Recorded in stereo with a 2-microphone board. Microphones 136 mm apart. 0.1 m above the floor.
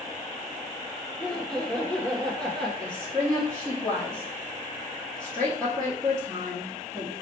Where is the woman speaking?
5° left (ahead or behind), 2.0 m.